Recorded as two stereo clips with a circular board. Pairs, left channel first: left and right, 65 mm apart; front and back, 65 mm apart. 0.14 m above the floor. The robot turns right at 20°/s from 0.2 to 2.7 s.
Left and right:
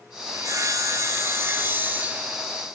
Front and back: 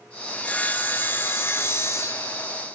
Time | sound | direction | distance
0.3 | sawing | 70° right | 0.5 m